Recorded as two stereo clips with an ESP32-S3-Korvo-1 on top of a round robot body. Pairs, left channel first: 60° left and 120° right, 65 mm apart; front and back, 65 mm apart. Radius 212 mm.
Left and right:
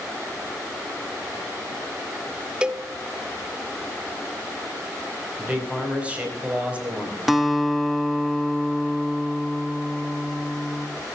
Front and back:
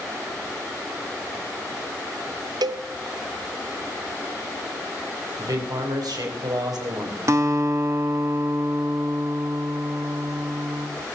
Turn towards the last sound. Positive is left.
turn(degrees=150)